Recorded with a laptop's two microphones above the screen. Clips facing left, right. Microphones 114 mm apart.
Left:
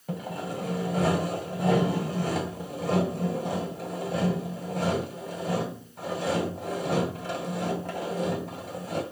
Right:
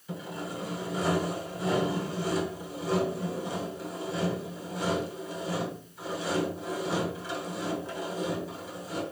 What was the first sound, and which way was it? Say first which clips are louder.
Sawing: left 3 dB; 55° left (ahead or behind).